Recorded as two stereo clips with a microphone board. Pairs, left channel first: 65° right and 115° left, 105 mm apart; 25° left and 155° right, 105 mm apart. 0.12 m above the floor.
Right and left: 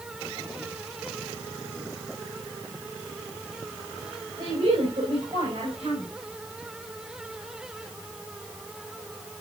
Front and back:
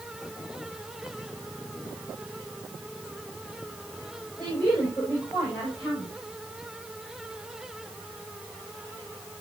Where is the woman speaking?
110° left, 6.5 m; by 6.1 s 105° left, 6.5 m.